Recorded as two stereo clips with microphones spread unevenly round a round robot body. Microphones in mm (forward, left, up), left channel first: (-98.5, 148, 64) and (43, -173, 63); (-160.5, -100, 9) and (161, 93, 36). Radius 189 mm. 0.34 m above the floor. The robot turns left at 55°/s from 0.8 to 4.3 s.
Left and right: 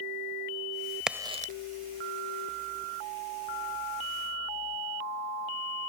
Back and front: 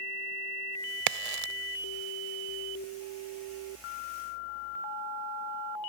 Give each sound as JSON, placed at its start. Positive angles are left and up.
{"t": 1.1, "sound": "a crack", "azimuth_deg": 20}